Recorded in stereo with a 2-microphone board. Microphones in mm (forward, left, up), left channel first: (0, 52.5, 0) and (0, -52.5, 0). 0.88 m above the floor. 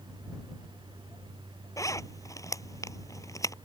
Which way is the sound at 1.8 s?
30° left (ahead or behind).